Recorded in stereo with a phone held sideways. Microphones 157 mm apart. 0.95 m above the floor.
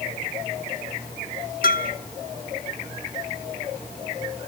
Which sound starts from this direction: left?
A bell, at 1.6 s.